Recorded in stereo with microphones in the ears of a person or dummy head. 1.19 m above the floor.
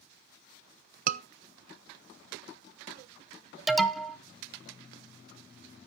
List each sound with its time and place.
1.1 s a scream: 40° right (ahead or behind), 0.7 m
3.7 s an alarm: centre (ahead or behind), 0.7 m